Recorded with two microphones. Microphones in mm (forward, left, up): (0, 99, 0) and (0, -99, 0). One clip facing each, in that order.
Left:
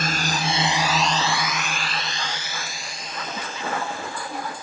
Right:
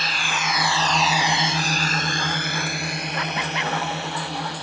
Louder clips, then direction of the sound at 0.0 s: Left 4 dB; 50° left (ahead or behind).